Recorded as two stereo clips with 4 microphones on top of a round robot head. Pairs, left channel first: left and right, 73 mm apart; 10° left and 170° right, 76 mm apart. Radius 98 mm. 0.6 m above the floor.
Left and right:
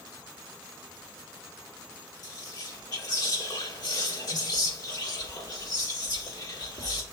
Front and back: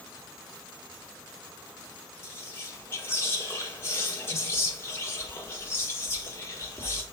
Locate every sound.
2.2 s whispering: 65° left, 2.5 m